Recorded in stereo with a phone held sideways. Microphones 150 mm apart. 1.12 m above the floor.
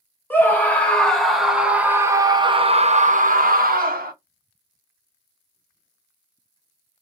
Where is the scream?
15° left (ahead or behind), 2 m; by 4.1 s 85° right, 1.5 m.